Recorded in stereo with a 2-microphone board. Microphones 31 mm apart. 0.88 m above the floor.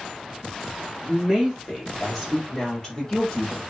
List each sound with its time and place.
1.0 s a woman speaking: 10° right (ahead or behind), 2 m; by 3.6 s 30° left (ahead or behind), 1.8 m